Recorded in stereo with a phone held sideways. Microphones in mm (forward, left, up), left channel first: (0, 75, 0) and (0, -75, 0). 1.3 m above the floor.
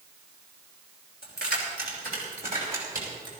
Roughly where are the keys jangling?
Right.